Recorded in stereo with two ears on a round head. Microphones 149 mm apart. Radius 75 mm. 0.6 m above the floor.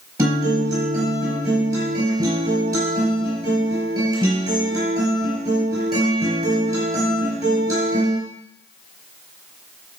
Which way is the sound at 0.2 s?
25° right (ahead or behind).